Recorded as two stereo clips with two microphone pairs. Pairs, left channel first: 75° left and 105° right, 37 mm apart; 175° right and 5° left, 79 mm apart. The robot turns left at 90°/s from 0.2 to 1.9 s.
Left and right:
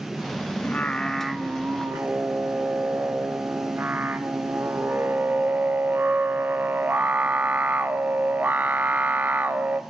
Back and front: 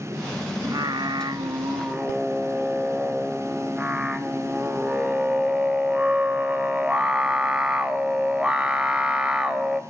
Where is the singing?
40° left, 0.6 m; by 9.8 s 75° right, 0.6 m.